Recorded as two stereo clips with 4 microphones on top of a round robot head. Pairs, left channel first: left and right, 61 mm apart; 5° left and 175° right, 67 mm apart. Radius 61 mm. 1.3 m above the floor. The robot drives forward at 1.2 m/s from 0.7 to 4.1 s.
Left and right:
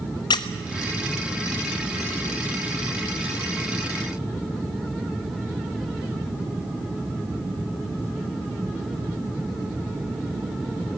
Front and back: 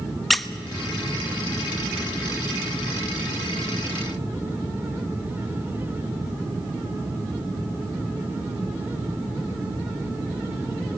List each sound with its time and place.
0.3 s a squeak: 95° left, 0.6 m